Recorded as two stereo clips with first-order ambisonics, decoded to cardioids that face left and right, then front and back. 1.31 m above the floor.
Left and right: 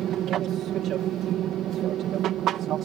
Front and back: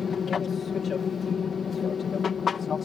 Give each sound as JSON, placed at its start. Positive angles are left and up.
{"t": 0.0, "sound": "an aircraft", "azimuth_deg": -55}